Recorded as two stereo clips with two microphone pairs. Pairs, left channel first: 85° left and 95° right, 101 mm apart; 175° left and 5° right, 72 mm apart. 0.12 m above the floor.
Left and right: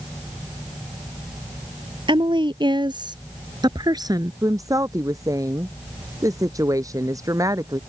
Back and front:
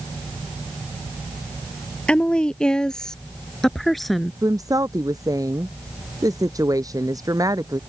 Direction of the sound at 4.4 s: 40° right.